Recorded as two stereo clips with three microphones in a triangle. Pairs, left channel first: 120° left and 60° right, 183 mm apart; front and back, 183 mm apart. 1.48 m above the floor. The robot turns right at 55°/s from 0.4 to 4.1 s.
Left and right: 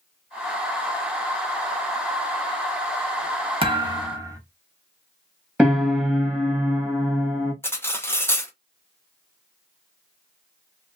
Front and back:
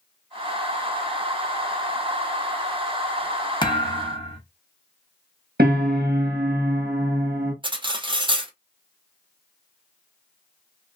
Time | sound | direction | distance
3.6 | a thud | 40° right | 0.8 m
5.6 | a piano | 145° right | 1.3 m
7.6 | cutlery clinking | straight behind | 0.6 m